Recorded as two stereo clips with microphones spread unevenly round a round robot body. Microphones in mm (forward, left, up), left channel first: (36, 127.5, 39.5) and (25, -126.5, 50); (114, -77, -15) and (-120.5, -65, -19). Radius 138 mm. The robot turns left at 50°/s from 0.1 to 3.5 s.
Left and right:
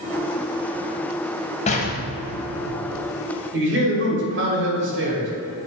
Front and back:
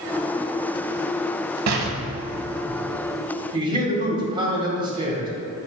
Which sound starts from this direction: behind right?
A man speaking, at 3.5 s.